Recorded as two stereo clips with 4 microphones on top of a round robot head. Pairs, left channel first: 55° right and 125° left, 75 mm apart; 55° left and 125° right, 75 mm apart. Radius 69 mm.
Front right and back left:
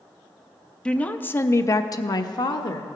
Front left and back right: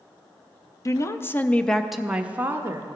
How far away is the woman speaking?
About 0.7 m.